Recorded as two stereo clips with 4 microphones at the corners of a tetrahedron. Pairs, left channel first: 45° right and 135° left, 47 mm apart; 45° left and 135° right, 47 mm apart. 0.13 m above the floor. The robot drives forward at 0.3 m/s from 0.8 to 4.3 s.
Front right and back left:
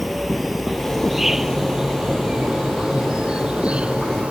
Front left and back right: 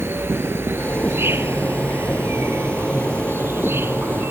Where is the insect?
135° right; by 4.3 s 160° right.